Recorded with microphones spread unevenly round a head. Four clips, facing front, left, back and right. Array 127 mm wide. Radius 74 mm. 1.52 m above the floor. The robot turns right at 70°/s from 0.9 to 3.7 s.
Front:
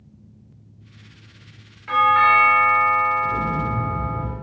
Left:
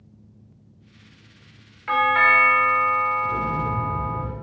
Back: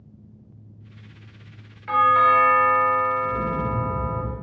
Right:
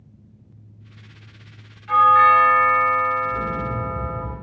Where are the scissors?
No scissors in this recording.